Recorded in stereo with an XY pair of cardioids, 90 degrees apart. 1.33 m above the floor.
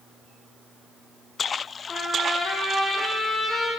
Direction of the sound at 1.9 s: 50° left.